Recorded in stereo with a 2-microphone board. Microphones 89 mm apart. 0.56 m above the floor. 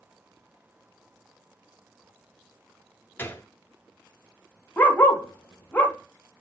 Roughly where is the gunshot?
Left.